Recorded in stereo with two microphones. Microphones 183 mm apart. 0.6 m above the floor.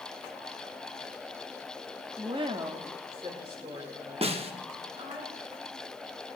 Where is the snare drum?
35° right (ahead or behind), 0.8 m.